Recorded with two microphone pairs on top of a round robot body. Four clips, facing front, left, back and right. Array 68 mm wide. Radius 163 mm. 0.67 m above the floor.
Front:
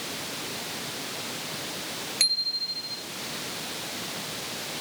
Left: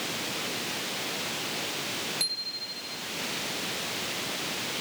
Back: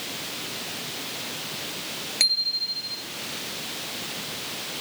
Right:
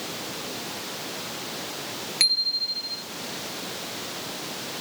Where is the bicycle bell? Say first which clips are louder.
Right 8 dB, back 5 dB; 140° right.